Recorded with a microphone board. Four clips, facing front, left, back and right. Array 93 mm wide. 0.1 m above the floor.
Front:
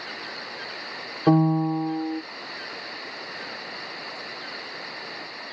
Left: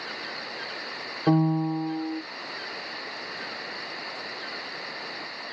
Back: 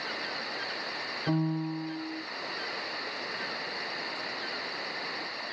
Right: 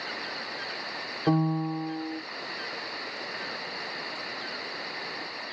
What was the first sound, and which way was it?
A piano, 10° left.